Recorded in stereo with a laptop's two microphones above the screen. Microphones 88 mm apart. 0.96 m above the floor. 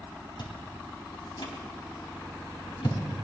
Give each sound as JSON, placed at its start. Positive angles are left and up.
{"t": 0.4, "sound": "chewing", "side_deg": 65, "distance_m": 4.0}